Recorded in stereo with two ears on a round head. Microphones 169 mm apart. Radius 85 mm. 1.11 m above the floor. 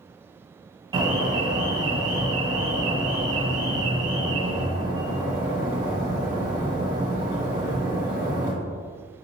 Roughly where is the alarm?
Right.